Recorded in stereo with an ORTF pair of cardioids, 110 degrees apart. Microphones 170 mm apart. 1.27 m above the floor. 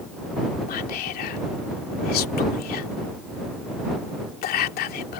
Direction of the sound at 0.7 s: 65° left.